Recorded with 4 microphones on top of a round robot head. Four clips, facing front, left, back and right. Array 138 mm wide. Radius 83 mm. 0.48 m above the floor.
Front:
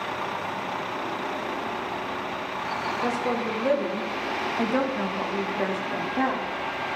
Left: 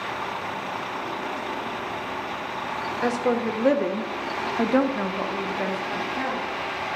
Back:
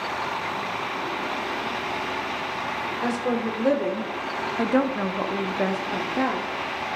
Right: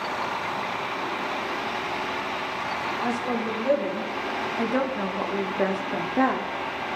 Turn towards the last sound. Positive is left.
turn(degrees=-105)